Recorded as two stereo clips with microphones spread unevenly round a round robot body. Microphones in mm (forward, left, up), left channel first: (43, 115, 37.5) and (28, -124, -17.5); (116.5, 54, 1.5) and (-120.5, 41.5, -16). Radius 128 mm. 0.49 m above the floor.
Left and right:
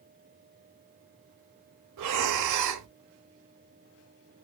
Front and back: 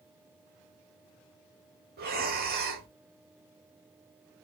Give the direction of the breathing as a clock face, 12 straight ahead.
4 o'clock.